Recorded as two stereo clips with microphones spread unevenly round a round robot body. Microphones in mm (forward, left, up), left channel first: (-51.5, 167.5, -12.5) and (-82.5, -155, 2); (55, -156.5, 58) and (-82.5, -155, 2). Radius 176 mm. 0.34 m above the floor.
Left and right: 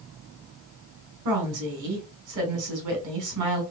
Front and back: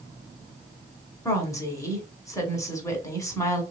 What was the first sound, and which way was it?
A woman speaking, 85° right.